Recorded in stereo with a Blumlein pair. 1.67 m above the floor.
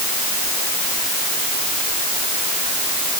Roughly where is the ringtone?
I don't hear a ringtone.